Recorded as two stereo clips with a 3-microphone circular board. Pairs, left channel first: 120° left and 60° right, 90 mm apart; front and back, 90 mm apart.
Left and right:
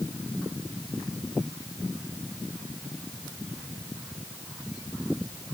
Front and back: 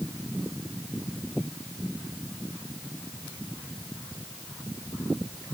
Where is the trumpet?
No trumpet in this recording.